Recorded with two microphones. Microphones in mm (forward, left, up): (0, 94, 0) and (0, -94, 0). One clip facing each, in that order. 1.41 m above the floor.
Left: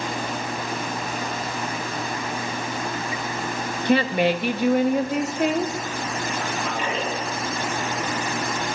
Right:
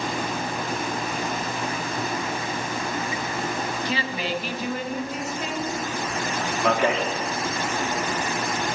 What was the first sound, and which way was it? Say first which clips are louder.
A woman speaking: left 9 dB; 55° left (ahead or behind).